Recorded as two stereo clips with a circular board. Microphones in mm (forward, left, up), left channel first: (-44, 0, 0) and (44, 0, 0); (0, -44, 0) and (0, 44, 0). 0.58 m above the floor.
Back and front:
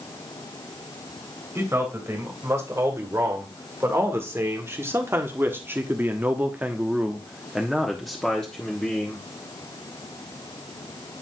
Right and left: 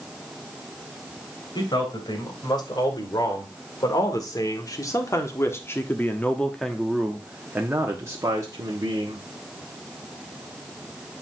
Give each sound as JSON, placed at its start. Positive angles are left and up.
{"t": 1.6, "sound": "a man speaking", "azimuth_deg": -60, "distance_m": 3.0}